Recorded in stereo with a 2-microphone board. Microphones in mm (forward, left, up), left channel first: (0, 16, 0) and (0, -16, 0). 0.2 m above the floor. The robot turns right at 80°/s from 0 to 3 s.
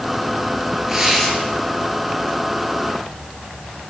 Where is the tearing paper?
20° right, 4 m; by 1.3 s 15° left, 4 m.